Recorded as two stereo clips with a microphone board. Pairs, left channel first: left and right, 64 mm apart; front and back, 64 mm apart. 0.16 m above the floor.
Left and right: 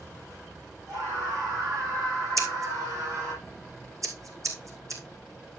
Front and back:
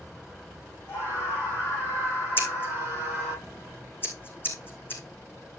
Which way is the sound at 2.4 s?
55° right.